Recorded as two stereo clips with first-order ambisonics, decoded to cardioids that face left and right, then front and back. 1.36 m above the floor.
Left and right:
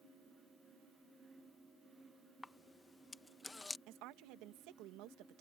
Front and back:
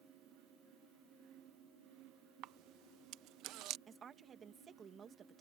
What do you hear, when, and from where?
2.4 s a camera shutter: 170° left
3.9 s a woman speaking: 115° right